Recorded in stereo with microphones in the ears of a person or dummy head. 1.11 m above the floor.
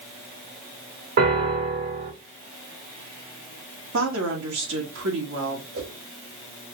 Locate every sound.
1.2 s a piano: 60° right (ahead or behind), 2.5 m
3.9 s a woman speaking: 80° right, 1.6 m
5.7 s a whoosh: 75° right (ahead or behind), 2.5 m